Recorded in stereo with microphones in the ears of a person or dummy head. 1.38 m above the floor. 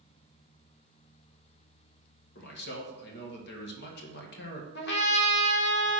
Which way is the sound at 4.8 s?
70° left (ahead or behind).